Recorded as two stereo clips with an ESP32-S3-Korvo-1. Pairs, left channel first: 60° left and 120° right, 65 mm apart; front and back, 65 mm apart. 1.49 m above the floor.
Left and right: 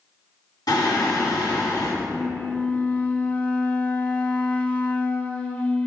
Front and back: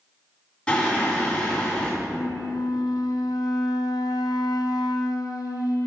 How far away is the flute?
About 0.6 m.